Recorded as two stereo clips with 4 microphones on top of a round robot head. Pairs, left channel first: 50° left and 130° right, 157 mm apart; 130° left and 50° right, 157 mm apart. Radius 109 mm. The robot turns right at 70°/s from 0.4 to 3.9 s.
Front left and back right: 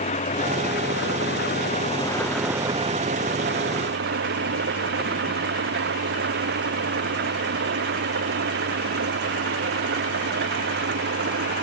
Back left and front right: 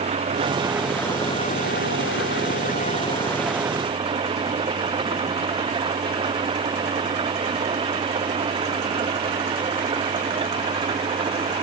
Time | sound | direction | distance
0.0 | an engine running | 5° left | ?